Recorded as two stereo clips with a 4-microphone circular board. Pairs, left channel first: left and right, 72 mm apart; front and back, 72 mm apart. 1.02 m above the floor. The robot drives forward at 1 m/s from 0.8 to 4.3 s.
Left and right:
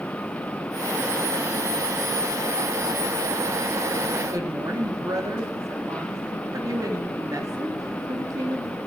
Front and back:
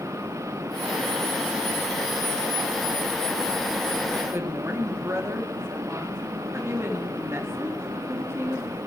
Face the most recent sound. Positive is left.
turn(degrees=-125)